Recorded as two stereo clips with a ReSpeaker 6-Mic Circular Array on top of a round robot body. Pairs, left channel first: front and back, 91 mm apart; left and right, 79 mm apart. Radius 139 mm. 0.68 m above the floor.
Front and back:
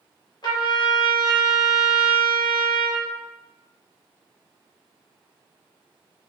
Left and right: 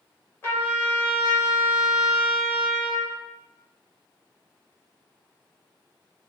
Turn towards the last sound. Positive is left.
turn(degrees=30)